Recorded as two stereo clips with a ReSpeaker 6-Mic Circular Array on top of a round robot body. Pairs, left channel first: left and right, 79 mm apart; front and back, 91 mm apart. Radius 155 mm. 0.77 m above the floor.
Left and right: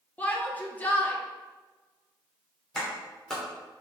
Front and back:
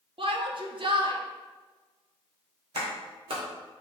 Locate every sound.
0.2 s a shout: 160° left, 1.6 m
2.8 s a clap: 175° left, 3 m